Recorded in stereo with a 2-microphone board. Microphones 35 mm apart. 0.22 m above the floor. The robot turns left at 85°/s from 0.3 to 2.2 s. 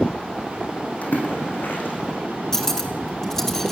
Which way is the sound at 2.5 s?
15° left (ahead or behind).